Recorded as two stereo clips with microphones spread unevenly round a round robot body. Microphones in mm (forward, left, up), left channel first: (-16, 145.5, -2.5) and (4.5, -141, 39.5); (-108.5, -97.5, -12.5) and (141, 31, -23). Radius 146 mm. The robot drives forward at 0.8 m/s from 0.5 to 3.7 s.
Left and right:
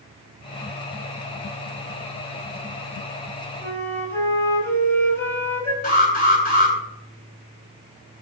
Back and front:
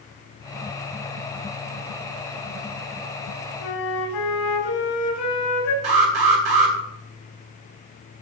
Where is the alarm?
30° left, 9 m.